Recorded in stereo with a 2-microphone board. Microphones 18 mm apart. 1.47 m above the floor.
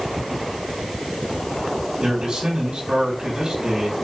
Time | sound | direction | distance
2.0 | a man speaking | 80° right | 3.5 m